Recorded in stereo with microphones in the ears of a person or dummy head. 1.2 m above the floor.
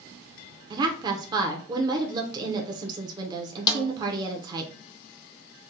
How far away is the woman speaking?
About 0.8 m.